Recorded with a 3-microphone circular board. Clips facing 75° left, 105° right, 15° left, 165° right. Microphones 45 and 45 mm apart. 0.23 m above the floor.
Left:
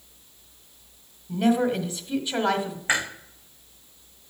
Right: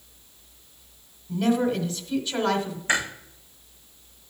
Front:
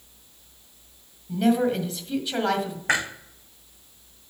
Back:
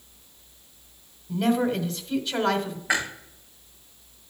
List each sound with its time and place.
1.3 s a woman speaking: 100° left, 1.3 m
2.9 s chewing: 5° left, 5.5 m